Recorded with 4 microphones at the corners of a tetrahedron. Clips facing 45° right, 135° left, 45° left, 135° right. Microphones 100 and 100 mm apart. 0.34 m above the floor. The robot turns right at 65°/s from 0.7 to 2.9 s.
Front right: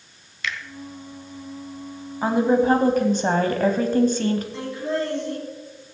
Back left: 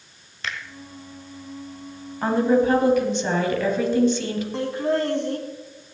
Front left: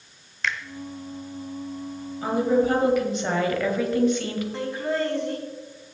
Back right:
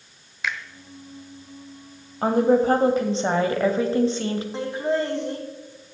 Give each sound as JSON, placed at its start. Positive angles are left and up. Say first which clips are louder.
{"t": 0.4, "sound": "a finger snap", "louder": "front right 1 dB, even", "azimuth_deg": 145, "distance_m": 1.1}
{"t": 2.2, "sound": "a woman speaking", "louder": "even, back right 3 dB", "azimuth_deg": -125, "distance_m": 1.6}
{"t": 4.5, "sound": "laughter", "louder": "back left 3 dB, back right 2 dB", "azimuth_deg": 160, "distance_m": 2.5}